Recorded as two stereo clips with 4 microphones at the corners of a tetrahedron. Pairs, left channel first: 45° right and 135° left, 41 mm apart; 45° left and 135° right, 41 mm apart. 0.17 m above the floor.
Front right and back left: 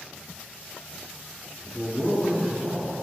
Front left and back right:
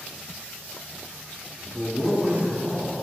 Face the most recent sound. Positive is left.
turn(degrees=-145)